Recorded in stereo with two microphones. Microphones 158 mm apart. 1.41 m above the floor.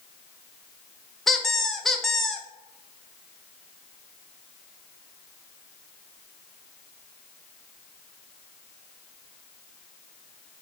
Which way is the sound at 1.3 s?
Centre (ahead or behind).